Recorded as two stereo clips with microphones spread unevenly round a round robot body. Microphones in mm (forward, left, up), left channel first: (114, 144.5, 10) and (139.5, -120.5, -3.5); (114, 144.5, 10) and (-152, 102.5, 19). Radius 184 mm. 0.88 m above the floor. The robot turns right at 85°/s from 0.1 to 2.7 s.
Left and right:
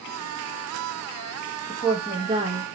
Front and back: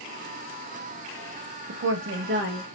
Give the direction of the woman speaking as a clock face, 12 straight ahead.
7 o'clock.